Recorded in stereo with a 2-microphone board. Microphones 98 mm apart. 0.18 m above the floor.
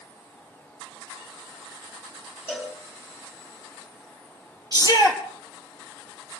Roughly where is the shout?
Left.